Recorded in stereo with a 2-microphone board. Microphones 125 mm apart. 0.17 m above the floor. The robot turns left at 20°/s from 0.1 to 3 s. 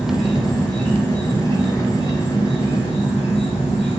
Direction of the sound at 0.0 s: 175° right.